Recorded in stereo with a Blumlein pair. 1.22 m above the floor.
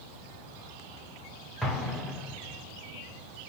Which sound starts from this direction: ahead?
An explosion, at 1.6 s.